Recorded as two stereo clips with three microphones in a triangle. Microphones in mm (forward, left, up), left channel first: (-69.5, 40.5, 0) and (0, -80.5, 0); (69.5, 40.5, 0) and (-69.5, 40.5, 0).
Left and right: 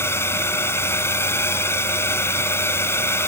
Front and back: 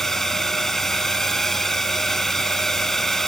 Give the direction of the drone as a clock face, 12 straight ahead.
9 o'clock.